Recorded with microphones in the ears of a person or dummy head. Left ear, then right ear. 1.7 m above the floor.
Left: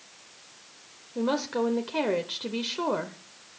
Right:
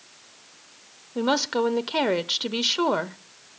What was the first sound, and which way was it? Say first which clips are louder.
A woman speaking: right 4 dB; 45° right (ahead or behind).